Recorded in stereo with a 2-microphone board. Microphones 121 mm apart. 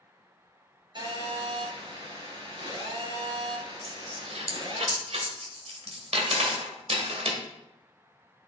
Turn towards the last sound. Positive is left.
turn(degrees=-60)  # may be behind; listen again after turning